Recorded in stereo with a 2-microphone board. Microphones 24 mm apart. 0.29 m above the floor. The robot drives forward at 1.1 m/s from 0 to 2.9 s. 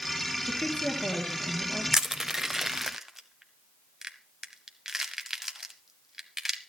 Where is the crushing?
20° right (ahead or behind), 0.8 m; by 6.6 s 10° right (ahead or behind), 1.2 m.